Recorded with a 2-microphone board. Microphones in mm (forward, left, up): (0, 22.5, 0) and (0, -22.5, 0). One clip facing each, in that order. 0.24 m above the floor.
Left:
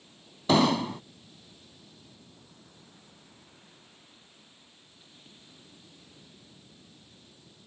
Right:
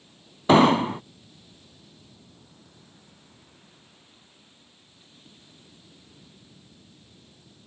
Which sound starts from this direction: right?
An explosion, at 0.5 s.